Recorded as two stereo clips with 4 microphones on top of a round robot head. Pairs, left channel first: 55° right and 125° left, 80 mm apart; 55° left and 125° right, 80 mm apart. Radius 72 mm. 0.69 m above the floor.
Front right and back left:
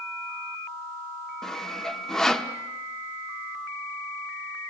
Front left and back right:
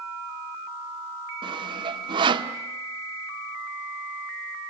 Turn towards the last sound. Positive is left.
turn(degrees=-140)